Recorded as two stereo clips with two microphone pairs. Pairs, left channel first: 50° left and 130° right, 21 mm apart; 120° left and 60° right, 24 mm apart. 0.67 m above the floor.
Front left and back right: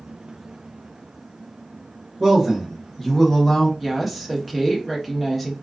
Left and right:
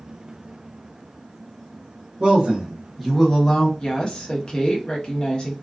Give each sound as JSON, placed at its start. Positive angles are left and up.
{"t": 2.2, "sound": "a man speaking", "azimuth_deg": -75, "distance_m": 0.8}
{"t": 3.8, "sound": "a woman speaking", "azimuth_deg": 145, "distance_m": 0.9}